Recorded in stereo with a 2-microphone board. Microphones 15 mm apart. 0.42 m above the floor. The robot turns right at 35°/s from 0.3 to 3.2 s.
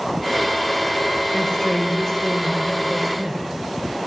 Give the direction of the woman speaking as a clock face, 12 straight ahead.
8 o'clock.